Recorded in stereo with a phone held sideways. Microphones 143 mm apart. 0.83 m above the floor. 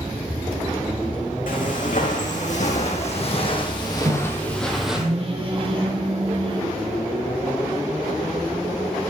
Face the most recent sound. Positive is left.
turn(degrees=-40)  # may be behind; listen again after turning